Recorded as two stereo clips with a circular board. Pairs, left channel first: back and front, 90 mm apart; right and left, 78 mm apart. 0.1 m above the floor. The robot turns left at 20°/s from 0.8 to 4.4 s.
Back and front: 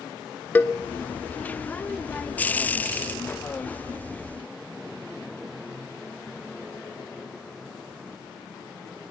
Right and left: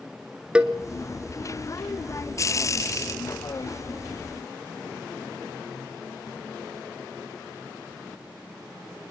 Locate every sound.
0.6 s a cowbell: 145° left, 0.9 m